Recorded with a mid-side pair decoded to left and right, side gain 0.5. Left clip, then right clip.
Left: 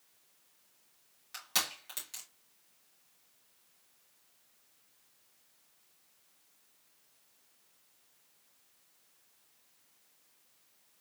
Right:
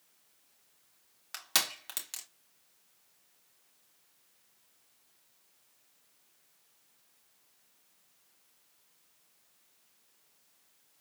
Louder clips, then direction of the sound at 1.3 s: Right 3 dB; 50° right.